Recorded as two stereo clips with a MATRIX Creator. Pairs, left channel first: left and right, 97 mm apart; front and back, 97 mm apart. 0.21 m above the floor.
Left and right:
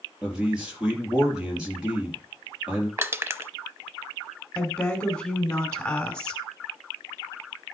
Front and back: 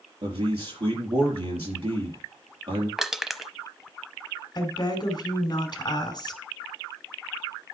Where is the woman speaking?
15° left, 2.5 m.